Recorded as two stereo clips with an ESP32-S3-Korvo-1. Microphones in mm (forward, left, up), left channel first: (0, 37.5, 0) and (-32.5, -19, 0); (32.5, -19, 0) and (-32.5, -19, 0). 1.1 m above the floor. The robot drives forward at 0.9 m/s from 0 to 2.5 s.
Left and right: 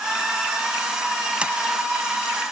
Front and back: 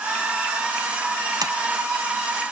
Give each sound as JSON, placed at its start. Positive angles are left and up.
{"t": 1.4, "sound": "a sliding door", "azimuth_deg": 165}